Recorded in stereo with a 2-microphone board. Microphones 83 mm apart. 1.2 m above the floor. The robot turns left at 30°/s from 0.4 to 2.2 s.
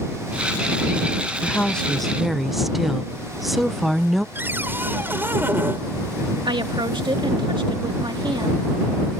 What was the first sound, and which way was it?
A woman speaking, 15° left (ahead or behind).